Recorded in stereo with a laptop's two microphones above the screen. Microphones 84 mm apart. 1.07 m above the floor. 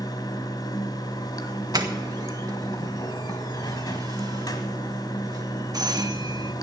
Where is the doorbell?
50° right (ahead or behind), 1.3 m.